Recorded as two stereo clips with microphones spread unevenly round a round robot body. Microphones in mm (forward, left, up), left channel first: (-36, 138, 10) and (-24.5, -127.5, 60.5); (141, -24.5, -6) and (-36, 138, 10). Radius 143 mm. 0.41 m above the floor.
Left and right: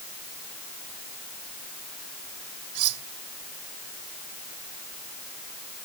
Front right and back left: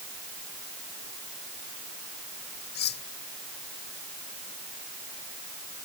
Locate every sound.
2.8 s cutlery clinking: 100° right